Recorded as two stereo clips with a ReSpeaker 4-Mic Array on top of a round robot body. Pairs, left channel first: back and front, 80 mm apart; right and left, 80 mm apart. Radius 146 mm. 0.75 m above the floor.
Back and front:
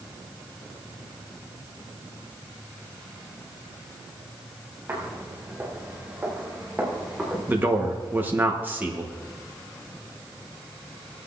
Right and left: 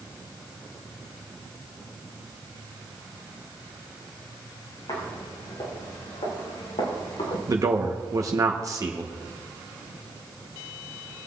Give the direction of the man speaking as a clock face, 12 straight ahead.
10 o'clock.